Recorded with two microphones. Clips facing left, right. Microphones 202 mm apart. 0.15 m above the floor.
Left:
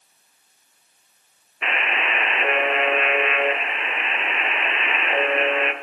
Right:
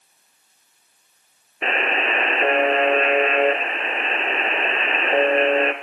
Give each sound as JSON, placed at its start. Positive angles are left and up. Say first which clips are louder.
{"t": 1.6, "sound": "a buzzer", "louder": "right 4 dB", "side_deg": -35, "distance_m": 1.9}